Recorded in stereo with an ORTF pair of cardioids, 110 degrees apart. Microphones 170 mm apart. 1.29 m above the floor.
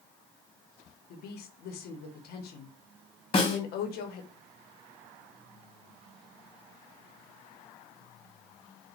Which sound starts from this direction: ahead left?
A snare drum, at 3.3 s.